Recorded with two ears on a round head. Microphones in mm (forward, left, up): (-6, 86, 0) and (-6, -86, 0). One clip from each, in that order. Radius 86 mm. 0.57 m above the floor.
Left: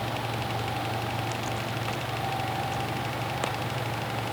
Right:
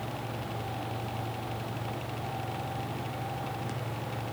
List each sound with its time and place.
Only background noise.